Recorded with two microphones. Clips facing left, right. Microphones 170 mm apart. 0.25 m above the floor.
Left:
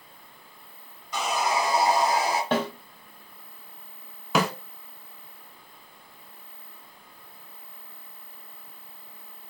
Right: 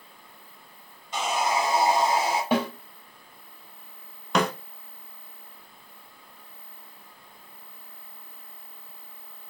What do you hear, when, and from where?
1.1 s sawing: 25° right (ahead or behind), 1.8 m
2.5 s a snare drum: 10° right (ahead or behind), 1.7 m
4.3 s a snare drum: 5° left (ahead or behind), 1.0 m